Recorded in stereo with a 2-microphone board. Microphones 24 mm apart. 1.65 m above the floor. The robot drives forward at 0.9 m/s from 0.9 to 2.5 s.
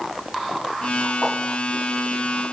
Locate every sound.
1.2 s a whoosh: 5° left (ahead or behind), 0.6 m